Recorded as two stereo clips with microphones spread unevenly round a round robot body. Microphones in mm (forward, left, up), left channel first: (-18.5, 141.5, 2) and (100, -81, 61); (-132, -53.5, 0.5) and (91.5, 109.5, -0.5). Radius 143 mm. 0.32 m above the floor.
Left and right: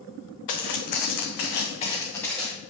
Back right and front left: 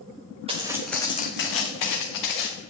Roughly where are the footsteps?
Left.